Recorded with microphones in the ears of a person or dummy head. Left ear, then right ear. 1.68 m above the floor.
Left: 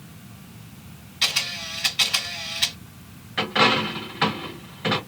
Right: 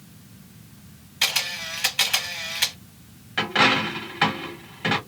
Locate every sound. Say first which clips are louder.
1.2 s a camera shutter: even; 25° right (ahead or behind), 1.5 m
3.4 s a dropped coin: even; 15° right (ahead or behind), 1.3 m